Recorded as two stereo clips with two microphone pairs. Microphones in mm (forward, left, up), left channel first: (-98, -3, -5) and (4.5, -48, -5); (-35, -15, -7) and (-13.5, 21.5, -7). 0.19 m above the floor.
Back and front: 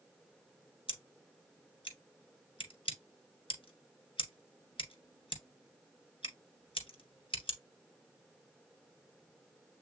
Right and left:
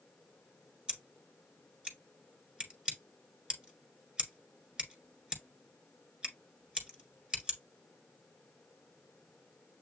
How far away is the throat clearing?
No throat clearing in this recording.